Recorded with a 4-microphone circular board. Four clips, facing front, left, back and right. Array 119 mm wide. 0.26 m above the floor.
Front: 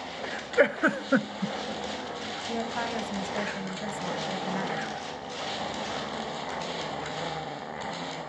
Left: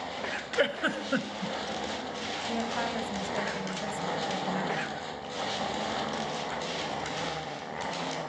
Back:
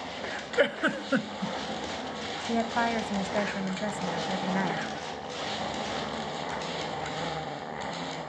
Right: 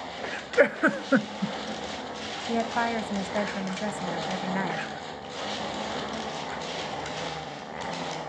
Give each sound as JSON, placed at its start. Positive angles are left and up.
{"t": 0.6, "sound": "a giggle", "azimuth_deg": -60, "distance_m": 0.7}
{"t": 2.5, "sound": "a woman speaking", "azimuth_deg": -135, "distance_m": 1.2}